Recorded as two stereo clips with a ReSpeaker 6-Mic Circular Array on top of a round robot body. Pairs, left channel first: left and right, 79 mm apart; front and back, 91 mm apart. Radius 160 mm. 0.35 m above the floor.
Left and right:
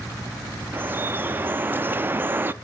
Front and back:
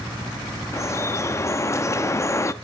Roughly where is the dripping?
Ahead right.